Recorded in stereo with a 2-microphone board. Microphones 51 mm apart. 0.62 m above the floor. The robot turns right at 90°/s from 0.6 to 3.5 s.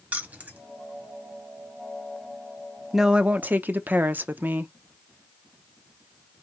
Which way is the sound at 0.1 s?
30° right (ahead or behind).